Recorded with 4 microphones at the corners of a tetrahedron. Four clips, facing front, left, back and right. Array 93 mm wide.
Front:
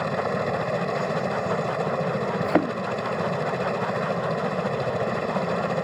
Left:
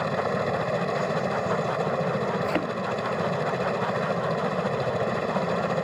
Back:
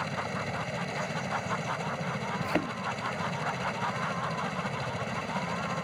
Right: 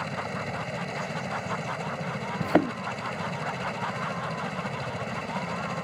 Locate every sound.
0.0 s a helicopter: 40° left
2.4 s a thud: 35° right